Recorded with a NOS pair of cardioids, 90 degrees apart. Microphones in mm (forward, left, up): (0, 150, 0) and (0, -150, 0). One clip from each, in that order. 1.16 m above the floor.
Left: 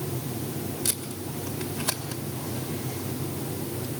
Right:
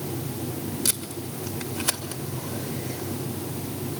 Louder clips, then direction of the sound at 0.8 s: Right 2 dB; 20° right.